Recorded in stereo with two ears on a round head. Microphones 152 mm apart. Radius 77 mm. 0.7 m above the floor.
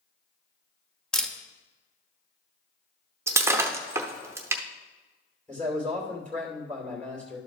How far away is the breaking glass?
About 0.7 m.